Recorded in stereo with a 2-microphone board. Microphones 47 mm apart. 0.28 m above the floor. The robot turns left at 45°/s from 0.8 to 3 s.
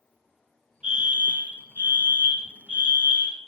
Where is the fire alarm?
40° right, 3 m; by 3.4 s 135° right, 3 m.